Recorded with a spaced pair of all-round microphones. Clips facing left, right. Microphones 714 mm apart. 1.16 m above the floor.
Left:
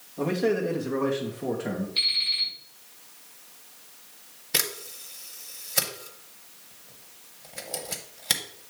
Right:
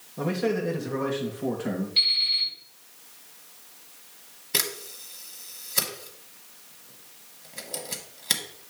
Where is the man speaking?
45° right (ahead or behind), 1.5 m; by 1.9 s 10° left (ahead or behind), 1.5 m.